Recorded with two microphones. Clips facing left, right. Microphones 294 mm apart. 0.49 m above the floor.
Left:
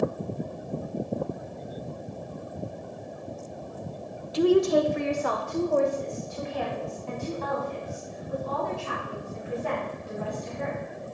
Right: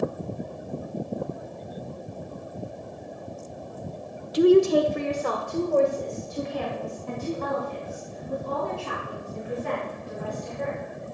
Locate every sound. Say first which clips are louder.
4.3 s a woman speaking: right 4 dB; 20° right (ahead or behind), 0.7 m; by 10.8 s 45° right (ahead or behind), 7 m